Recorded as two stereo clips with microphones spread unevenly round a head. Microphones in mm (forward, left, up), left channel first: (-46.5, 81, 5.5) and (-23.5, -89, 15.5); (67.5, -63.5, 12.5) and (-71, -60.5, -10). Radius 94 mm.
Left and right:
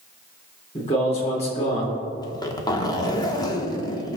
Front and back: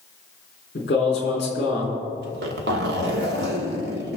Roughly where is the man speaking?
Ahead left.